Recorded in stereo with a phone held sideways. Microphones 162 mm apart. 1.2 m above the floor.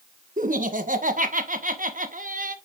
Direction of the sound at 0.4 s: 55° right (ahead or behind).